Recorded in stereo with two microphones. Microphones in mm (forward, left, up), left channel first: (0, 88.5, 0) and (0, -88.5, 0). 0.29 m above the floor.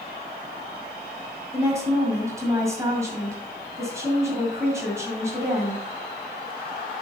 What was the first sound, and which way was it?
A woman speaking, 15° right (ahead or behind).